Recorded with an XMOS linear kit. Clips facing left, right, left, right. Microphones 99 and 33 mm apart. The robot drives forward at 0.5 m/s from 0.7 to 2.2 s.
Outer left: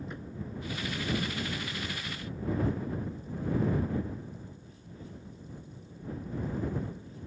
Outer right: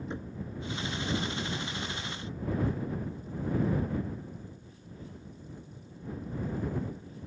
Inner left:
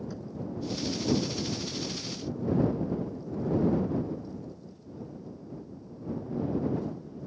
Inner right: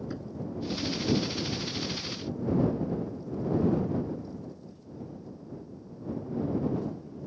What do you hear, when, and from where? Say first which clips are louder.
0.1 s knocking: outer right 3 dB, inner right 2 dB; 25° right (ahead or behind)